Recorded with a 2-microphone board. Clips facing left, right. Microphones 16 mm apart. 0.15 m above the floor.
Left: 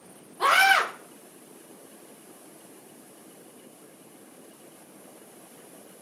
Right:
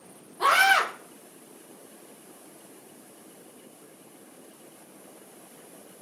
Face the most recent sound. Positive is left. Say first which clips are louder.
# left 1 dB
turn(degrees=15)  # may be behind; listen again after turning